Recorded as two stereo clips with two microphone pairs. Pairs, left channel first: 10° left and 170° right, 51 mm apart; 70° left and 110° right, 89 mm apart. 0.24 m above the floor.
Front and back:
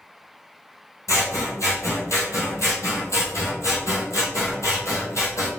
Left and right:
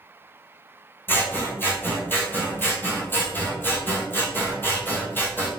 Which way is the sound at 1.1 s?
5° left.